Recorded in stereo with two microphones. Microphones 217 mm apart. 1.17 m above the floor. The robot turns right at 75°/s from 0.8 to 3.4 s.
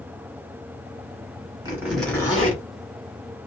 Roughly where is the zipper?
Ahead right.